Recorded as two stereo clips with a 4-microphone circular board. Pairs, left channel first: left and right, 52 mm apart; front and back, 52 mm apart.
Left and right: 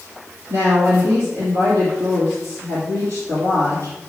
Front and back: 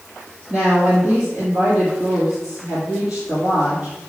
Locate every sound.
0.5 s a woman speaking: 95° right, 3.5 m